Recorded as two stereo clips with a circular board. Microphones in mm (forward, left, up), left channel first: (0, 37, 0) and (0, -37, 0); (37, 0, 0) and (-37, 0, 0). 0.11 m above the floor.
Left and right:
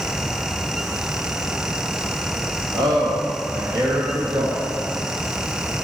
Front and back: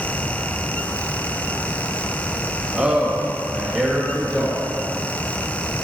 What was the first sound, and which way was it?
A man speaking, 105° right.